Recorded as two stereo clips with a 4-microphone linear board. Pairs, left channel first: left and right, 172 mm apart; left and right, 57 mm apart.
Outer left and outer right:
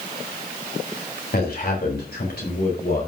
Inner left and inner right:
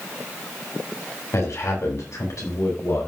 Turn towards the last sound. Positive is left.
turn(degrees=80)